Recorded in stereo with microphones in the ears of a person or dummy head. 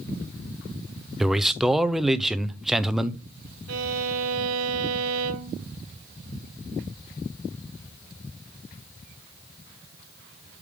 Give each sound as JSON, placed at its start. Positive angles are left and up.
{"t": 1.2, "sound": "a man speaking", "side_deg": 0, "distance_m": 0.5}
{"t": 3.7, "sound": "a violin", "side_deg": -80, "distance_m": 0.8}